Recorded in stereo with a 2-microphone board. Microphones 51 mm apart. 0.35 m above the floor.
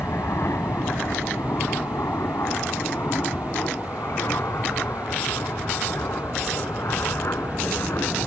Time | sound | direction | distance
0.0 | an aircraft | 60° left (ahead or behind) | ?